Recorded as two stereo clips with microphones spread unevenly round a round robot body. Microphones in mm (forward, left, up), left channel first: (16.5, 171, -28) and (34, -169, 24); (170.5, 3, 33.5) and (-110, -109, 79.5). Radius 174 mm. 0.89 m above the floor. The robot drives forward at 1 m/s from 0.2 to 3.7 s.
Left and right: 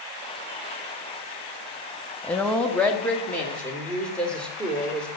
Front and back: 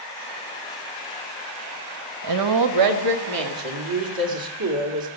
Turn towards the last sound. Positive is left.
turn(degrees=180)